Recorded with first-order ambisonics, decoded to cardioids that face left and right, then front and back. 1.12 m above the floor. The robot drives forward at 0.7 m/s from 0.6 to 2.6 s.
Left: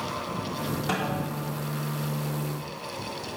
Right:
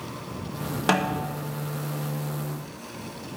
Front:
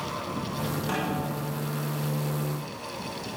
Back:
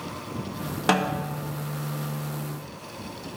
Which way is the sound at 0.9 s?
135° right.